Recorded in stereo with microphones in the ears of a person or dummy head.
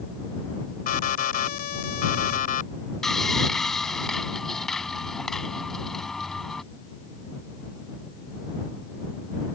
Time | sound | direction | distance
0.9 | an alarm | 40° left (ahead or behind) | ?
3.0 | sawing | 5° left (ahead or behind) | ?